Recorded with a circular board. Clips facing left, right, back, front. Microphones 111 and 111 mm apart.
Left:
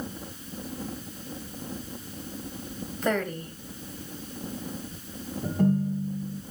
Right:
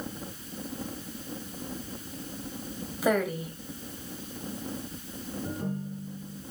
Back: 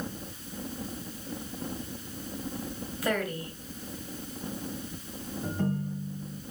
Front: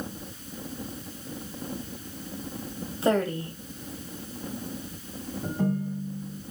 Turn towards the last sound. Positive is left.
turn(degrees=85)